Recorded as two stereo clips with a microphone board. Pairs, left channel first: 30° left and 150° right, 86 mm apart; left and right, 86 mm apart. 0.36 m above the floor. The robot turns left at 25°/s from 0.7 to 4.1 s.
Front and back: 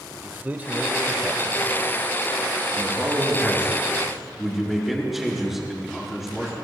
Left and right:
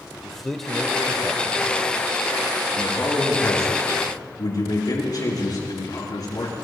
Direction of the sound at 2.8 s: 160° left.